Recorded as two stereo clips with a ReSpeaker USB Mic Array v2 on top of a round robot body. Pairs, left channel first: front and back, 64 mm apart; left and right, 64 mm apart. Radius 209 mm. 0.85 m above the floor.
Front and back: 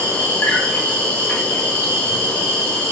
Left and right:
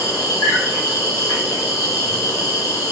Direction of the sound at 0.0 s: 60° left.